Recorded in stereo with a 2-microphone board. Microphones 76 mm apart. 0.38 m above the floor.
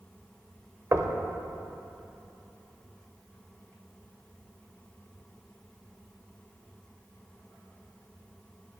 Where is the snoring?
I don't hear snoring.